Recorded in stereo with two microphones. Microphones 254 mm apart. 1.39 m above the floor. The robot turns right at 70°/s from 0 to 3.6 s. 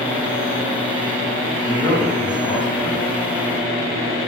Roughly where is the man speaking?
Ahead right.